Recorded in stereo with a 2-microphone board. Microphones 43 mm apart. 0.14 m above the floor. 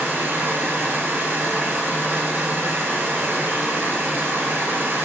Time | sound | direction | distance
0.0 | running water | 60° right (ahead or behind) | 1.1 m